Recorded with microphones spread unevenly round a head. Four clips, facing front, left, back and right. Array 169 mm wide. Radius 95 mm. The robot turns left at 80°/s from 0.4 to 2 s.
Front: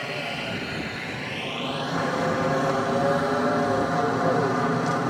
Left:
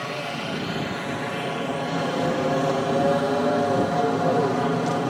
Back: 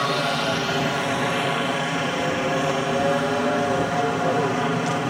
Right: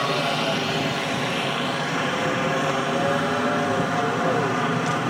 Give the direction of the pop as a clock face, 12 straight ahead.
I don't hear a pop.